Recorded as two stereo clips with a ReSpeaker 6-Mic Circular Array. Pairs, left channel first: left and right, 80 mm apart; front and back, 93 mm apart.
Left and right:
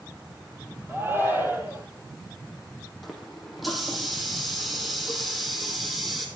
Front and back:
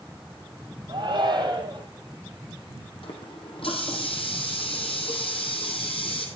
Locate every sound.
0.9 s a shout: 150° right, 3.5 m
3.0 s a running tap: straight ahead, 2.5 m